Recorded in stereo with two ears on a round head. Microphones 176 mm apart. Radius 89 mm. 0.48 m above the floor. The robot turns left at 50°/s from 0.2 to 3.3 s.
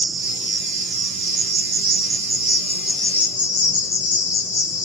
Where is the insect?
45° right, 1.1 m; by 4.8 s 160° left, 1.1 m.